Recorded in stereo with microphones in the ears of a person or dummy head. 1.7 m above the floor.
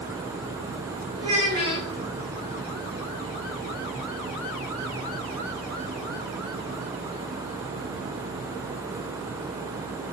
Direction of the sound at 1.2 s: 25° right (ahead or behind).